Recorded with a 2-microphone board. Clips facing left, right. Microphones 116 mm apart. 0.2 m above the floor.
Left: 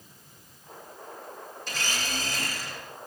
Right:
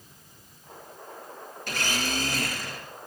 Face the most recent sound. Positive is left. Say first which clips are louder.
# right 4 dB
turn(degrees=-60)  # may be behind; listen again after turning